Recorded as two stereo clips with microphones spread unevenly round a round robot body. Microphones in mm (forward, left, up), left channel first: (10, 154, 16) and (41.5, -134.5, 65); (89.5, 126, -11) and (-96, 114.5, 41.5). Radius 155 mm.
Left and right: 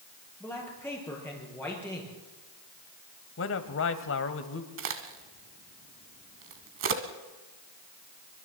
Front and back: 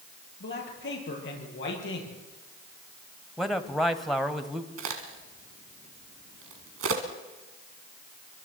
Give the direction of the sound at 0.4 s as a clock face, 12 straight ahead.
12 o'clock.